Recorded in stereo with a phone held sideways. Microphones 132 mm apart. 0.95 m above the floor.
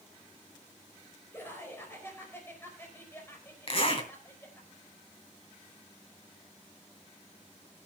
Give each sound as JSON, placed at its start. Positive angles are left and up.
{"t": 1.3, "sound": "laughter", "side_deg": 15, "distance_m": 4.5}
{"t": 3.7, "sound": "a zipper", "side_deg": 50, "distance_m": 3.0}